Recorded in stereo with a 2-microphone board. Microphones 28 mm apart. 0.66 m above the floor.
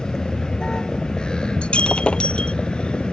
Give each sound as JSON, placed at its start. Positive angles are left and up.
{"t": 0.0, "sound": "a vehicle", "side_deg": 25}
{"t": 1.6, "sound": "breaking glass", "side_deg": 40}